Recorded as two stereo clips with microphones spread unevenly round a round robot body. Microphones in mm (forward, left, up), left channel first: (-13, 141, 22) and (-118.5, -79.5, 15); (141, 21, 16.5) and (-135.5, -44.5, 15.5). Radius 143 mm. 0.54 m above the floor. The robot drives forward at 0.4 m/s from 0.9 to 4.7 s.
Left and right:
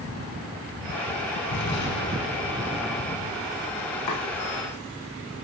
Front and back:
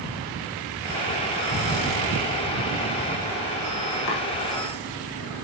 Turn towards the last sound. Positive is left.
turn(degrees=60)